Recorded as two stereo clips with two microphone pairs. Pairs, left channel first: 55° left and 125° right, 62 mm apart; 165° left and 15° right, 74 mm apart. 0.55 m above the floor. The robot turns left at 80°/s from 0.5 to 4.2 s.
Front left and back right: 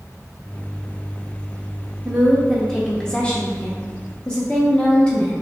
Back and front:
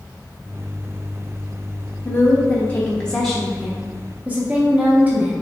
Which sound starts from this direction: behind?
A woman speaking, at 2.0 s.